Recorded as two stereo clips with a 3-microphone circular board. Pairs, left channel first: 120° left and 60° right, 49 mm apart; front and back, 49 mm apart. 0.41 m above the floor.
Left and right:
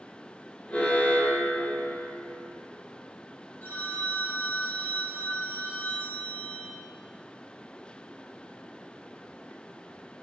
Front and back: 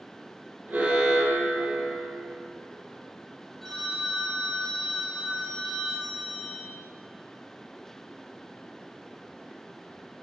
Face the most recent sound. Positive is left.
turn(degrees=80)